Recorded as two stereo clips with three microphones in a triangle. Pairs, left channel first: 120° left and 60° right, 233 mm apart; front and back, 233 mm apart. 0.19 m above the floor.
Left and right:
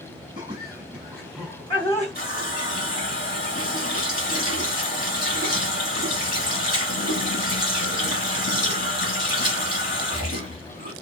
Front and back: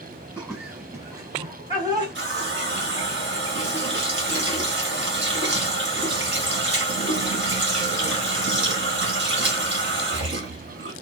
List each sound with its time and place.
0.4 s laughter: 100° right, 1.5 m; by 2.1 s 125° left, 1.6 m
2.1 s a running tap: 160° left, 1.5 m